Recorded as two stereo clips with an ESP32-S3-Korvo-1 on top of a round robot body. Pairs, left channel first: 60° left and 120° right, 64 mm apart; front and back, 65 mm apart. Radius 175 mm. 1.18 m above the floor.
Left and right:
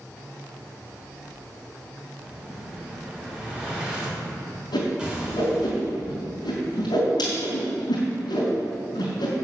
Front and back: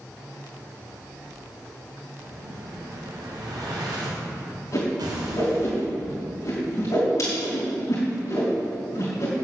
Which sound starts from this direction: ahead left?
A whoosh, at 4.7 s.